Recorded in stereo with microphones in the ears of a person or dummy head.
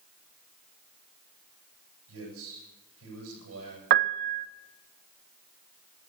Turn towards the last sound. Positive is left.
turn(degrees=-55)  # may be behind; listen again after turning